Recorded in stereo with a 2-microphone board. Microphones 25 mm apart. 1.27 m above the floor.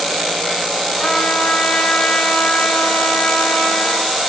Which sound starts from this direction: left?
A trumpet, at 1.0 s.